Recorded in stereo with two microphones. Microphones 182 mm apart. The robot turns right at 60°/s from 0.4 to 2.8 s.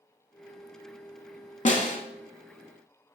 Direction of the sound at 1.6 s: 45° left (ahead or behind).